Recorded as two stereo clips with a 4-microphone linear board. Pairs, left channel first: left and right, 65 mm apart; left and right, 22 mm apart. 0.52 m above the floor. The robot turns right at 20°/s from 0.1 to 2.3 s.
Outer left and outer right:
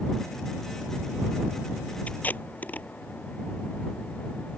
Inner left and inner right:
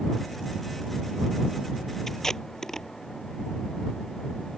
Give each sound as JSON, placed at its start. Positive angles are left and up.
{"t": 2.1, "sound": "tape being pulled", "side_deg": 25}